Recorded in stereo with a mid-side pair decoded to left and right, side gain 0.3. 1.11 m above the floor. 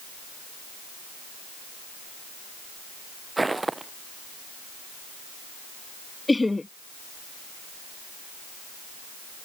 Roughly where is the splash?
No splash in this recording.